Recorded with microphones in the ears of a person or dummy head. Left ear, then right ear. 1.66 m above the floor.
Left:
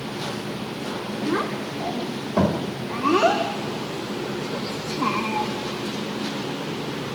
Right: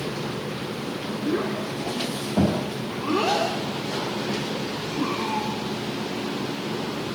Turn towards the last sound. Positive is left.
turn(degrees=60)  # may be behind; listen again after turning